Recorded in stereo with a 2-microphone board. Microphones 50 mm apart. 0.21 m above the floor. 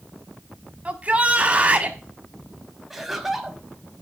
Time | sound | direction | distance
0.8 | a shout | 30° right (ahead or behind) | 1.2 m
2.9 | laughter | 5° right (ahead or behind) | 1.2 m